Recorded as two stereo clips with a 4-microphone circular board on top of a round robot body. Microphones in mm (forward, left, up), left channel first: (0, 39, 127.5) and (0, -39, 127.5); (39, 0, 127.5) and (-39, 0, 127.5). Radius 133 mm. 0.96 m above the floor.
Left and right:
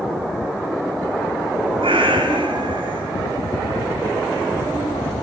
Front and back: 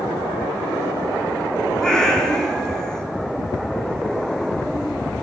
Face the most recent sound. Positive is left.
turn(degrees=-80)